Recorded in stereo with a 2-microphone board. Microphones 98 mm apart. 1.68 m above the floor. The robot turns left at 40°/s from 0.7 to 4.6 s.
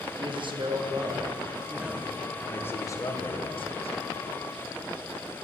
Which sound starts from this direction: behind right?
A man speaking, at 0.2 s.